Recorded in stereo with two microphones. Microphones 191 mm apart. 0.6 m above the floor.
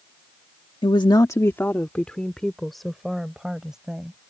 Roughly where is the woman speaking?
Left.